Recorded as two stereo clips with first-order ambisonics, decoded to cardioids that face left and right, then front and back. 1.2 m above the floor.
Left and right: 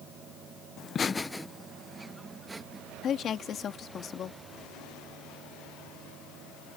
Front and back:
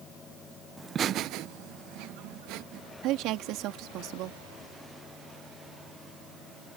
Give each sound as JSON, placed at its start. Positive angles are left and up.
{"t": 0.8, "sound": "laughter", "azimuth_deg": 105}
{"t": 3.0, "sound": "a woman speaking", "azimuth_deg": 150}